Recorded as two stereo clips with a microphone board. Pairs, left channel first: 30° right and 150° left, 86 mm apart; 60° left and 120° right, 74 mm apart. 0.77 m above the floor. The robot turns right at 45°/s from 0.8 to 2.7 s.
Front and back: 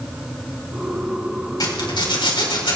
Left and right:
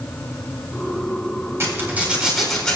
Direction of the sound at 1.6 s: 70° right.